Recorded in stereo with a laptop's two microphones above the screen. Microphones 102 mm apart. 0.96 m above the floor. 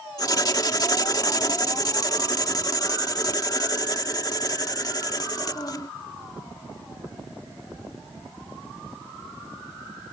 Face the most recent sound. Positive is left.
turn(degrees=40)  # may be behind; listen again after turning